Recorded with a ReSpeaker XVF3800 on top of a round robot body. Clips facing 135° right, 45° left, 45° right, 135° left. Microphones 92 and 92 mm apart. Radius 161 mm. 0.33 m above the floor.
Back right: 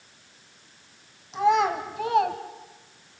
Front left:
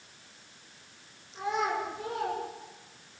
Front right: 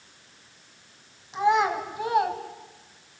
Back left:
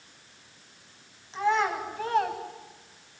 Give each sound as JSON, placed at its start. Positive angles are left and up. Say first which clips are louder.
{"t": 1.3, "sound": "a child speaking", "louder": "back right 9 dB, front right 4 dB", "azimuth_deg": -115, "distance_m": 2.5}